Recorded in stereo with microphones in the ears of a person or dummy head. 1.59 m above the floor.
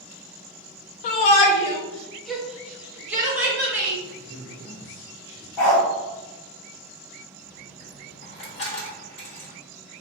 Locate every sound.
1.0 s a shout: 35° left (ahead or behind), 0.5 m; by 3.9 s 10° right (ahead or behind), 1.5 m
4.0 s a man speaking: 20° right (ahead or behind), 1.7 m
5.6 s a dog barking: 15° left (ahead or behind), 1.6 m
7.4 s a dropped coin: 15° left (ahead or behind), 1.0 m